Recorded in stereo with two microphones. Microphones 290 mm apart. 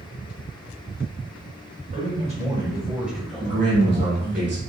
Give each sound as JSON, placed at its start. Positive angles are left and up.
{"t": 1.9, "sound": "a man speaking", "side_deg": -30, "distance_m": 1.7}
{"t": 3.4, "sound": "a man speaking", "side_deg": -35, "distance_m": 1.4}